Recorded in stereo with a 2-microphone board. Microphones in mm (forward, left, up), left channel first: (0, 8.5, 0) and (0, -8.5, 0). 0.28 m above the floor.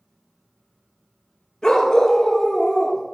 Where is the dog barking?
35° left (ahead or behind), 2.5 m.